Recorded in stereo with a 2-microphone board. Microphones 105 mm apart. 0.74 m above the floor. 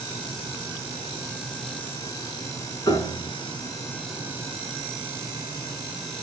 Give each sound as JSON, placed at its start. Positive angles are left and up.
{"t": 2.9, "sound": "a piano", "side_deg": 40, "distance_m": 3.0}